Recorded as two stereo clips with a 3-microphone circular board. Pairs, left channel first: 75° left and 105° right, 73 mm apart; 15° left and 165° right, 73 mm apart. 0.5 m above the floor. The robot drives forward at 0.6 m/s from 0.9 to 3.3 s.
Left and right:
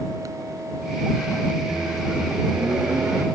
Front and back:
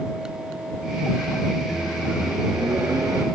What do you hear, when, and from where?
1.7 s a microwave: 110° right, 0.7 m; by 3.2 s 170° right, 1.2 m